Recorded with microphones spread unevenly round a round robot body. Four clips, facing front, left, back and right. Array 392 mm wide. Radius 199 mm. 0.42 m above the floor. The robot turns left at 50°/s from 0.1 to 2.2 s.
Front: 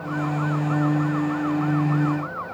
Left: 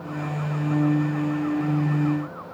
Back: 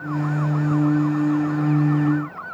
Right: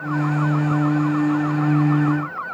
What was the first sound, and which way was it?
Only background noise.